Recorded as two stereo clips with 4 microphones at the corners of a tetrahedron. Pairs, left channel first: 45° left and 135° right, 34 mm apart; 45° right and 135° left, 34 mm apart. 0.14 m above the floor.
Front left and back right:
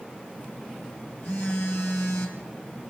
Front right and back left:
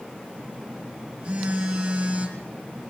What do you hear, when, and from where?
0.4 s a phone buzzing: 75° left, 3.5 m